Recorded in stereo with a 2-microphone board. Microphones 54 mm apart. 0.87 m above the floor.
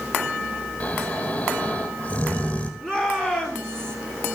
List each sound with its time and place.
0.8 s snoring: 30° left (ahead or behind), 4.5 m
2.8 s a shout: 10° left (ahead or behind), 9 m